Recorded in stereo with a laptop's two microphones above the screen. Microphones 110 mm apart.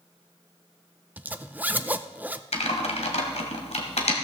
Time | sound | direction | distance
1.2 | a zipper | 15° right (ahead or behind) | 0.5 m
2.5 | typing on a keyboard | 75° left (ahead or behind) | 1.9 m